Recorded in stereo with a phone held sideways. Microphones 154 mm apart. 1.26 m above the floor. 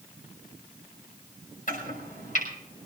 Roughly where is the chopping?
Left.